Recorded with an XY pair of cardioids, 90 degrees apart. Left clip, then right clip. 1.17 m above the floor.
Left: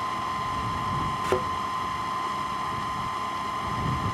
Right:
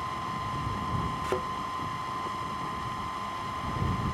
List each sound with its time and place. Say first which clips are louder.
0.0 s a fan: left 5 dB; 35° left
1.2 s a thud: left 6 dB; 40° left